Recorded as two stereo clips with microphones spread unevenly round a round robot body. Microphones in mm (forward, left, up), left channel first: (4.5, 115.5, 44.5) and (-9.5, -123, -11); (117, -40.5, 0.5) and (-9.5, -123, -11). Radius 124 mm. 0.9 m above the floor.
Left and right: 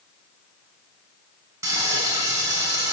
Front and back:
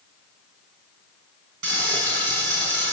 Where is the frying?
170° right, 5.5 m.